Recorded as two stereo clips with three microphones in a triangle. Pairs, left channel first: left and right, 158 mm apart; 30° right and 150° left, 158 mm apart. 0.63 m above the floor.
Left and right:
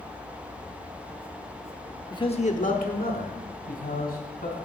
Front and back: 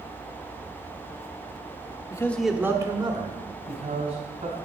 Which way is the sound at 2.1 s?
30° left.